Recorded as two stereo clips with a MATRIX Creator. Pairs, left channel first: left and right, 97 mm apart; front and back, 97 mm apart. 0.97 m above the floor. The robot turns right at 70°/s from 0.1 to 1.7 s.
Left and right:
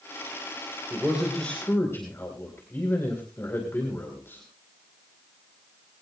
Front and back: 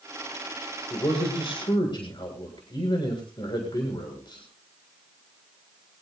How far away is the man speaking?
About 4 m.